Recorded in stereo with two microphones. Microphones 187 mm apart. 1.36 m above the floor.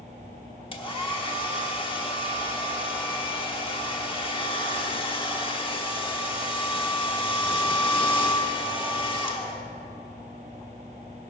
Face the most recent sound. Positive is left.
turn(degrees=30)  # may be behind; listen again after turning